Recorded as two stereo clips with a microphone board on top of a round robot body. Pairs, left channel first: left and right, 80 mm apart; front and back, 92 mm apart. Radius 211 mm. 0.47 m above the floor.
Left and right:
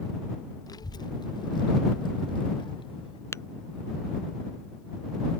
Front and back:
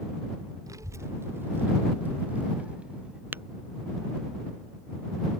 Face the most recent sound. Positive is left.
turn(degrees=125)